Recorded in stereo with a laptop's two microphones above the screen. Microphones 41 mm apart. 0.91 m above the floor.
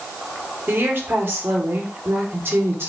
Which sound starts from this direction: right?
A woman speaking, at 0.7 s.